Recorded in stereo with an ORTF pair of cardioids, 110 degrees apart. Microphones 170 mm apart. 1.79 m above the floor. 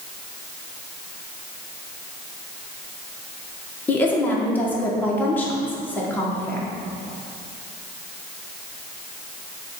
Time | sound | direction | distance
3.9 | a woman speaking | 10° left | 1.4 m